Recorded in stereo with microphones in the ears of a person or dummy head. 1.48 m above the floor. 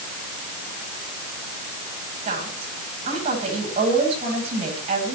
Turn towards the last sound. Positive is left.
turn(degrees=-35)  # may be behind; listen again after turning